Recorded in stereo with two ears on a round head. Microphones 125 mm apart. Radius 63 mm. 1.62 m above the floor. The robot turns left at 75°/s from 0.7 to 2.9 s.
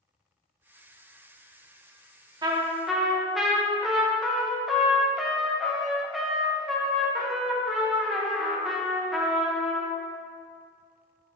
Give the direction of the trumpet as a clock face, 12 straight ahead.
5 o'clock.